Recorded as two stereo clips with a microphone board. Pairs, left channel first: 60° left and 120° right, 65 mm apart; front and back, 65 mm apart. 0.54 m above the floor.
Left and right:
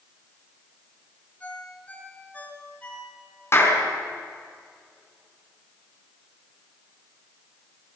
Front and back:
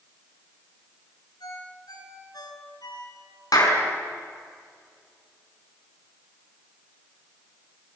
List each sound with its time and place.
1.4 s a ringtone: 5° right, 5 m
3.5 s a clap: 10° left, 5 m